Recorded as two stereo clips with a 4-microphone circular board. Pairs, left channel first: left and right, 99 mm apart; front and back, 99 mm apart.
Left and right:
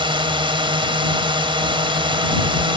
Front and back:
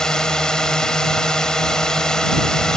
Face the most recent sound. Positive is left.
turn(degrees=-80)